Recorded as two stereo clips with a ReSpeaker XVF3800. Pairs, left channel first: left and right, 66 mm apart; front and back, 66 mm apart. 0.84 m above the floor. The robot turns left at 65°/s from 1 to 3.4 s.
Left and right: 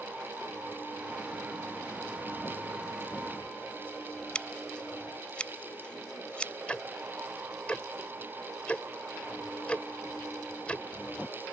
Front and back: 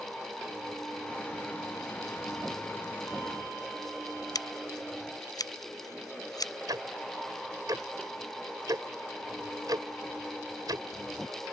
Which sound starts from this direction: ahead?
Scissors, at 4.3 s.